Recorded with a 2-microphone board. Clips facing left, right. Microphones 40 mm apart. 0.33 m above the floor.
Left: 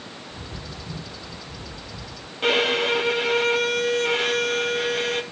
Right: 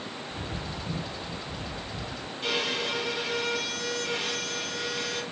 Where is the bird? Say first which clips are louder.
Right 2 dB; 35° right (ahead or behind), 1.2 m.